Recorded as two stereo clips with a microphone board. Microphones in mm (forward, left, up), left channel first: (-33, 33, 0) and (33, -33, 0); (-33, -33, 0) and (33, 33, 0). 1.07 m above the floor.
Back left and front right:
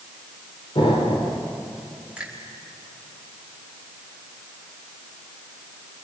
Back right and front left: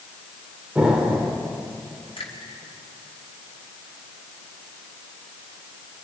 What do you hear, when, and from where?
0.8 s an explosion: 125° left, 3 m
2.2 s a finger snap: 125° right, 4.5 m